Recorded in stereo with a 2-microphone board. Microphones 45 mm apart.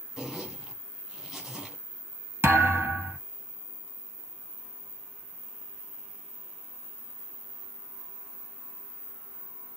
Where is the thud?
65° right (ahead or behind), 1.6 m.